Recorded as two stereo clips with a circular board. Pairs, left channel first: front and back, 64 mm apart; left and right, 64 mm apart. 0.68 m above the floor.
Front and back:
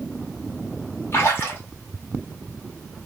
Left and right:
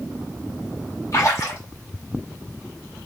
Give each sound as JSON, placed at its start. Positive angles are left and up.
{"t": 1.1, "sound": "a splash", "azimuth_deg": 55, "distance_m": 1.0}